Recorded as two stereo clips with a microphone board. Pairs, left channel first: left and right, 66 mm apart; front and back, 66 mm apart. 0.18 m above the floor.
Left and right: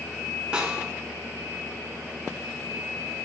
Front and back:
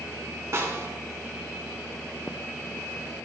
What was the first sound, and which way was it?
A snare drum, 160° right.